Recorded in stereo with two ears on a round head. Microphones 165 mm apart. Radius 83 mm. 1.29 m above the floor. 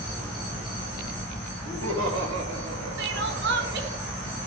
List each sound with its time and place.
1.6 s laughter: 85° right, 2.5 m; by 4.0 s 50° right (ahead or behind), 2.5 m
3.0 s crying: 65° right (ahead or behind), 1.1 m